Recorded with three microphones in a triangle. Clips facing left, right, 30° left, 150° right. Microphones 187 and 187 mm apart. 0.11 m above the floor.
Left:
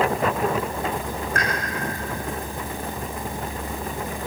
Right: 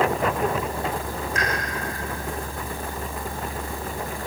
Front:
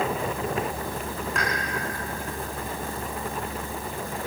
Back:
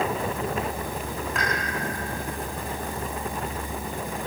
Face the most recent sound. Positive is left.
turn(degrees=120)